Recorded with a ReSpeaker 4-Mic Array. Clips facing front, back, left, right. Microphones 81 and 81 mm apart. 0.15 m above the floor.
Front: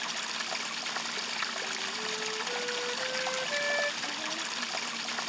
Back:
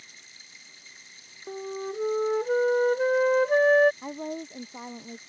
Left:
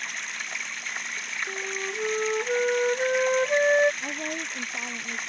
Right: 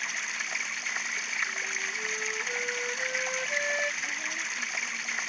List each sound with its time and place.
0.0 s running water: straight ahead
1.5 s a flute: 135° left
4.0 s a woman speaking: 130° left